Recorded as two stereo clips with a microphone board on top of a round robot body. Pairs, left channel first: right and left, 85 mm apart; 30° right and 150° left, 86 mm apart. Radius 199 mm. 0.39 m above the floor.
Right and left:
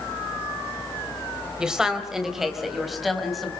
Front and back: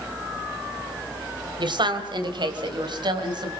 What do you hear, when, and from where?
1.6 s a woman speaking: 170° left, 3.5 m; by 3.5 s straight behind, 5 m